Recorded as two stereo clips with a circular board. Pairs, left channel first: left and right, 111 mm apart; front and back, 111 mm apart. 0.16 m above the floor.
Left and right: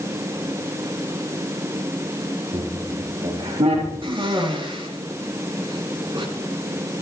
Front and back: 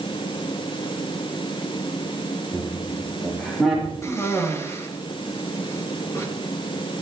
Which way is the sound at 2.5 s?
80° right.